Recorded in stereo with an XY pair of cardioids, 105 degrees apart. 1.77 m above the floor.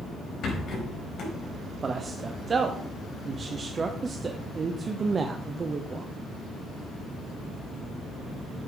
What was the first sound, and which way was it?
A rattle, 65° left.